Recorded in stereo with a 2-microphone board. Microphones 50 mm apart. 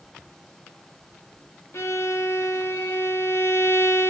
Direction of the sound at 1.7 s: 60° left (ahead or behind).